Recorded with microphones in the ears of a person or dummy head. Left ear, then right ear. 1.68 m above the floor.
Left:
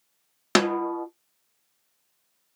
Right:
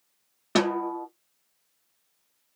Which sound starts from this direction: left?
A snare drum, at 0.6 s.